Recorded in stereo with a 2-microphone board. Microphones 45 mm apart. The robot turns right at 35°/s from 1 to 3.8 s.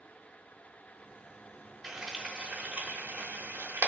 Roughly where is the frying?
Centre.